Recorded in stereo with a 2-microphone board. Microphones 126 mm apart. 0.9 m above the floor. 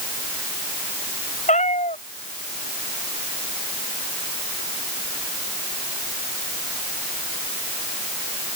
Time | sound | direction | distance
1.5 | a cat meowing | 70° left (ahead or behind) | ?